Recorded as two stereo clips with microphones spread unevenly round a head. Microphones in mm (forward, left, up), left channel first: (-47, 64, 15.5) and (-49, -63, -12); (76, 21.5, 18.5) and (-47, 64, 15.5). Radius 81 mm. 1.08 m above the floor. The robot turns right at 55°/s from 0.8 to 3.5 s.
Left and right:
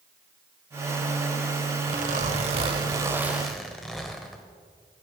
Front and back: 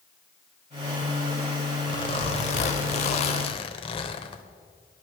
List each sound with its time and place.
1.9 s a zipper: 80° right, 1.1 m; by 4.4 s 10° left, 1.1 m